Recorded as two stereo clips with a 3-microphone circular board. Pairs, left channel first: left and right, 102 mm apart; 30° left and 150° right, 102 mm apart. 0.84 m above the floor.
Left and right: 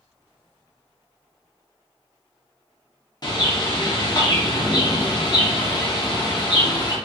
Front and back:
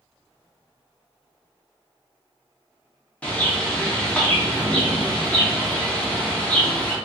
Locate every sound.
3.2 s a bird: 100° left, 0.6 m